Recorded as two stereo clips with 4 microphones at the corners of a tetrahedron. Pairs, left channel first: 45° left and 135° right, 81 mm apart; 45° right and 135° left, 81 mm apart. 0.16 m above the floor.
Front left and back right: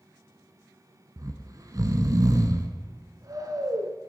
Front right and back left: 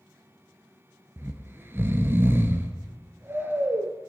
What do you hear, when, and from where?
1.2 s snoring: 170° right, 1.4 m